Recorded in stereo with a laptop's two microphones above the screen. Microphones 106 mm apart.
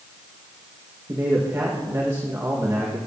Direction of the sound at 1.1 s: 25° right (ahead or behind).